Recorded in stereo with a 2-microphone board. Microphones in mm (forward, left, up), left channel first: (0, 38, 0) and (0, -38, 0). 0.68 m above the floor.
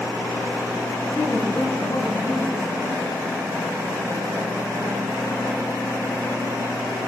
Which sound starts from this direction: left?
A woman speaking, at 1.1 s.